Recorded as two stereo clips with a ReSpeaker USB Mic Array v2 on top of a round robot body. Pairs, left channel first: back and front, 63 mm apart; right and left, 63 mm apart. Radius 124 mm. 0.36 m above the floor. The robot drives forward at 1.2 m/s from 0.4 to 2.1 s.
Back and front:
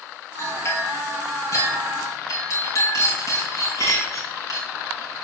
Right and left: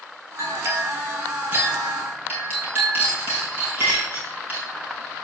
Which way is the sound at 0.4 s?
135° left.